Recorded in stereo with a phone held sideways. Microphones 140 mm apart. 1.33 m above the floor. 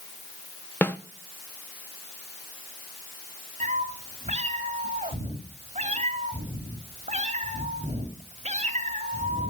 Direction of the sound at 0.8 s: 15° left (ahead or behind).